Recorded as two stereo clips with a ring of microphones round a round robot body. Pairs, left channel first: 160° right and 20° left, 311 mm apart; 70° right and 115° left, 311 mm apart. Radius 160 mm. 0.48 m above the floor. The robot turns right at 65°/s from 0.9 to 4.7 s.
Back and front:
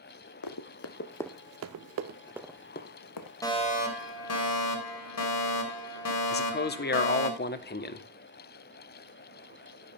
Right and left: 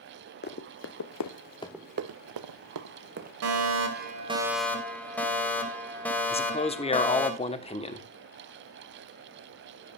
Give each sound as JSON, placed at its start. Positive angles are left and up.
{"t": 0.4, "sound": "running footsteps", "azimuth_deg": -125, "distance_m": 1.2}
{"t": 3.4, "sound": "a fire alarm", "azimuth_deg": 125, "distance_m": 3.0}
{"t": 6.3, "sound": "a man speaking", "azimuth_deg": -125, "distance_m": 1.3}